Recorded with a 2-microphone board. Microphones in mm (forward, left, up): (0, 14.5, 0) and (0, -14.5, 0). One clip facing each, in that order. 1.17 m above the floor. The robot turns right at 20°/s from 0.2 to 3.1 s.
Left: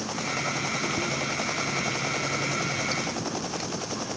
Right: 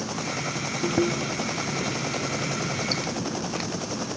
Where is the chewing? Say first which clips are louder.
Right 3 dB; 80° right; by 4.1 s 35° right.